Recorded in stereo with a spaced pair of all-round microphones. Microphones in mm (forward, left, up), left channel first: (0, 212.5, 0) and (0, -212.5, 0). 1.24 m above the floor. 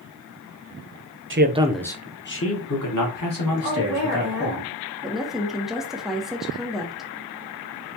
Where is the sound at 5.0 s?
Centre (ahead or behind), 0.8 m.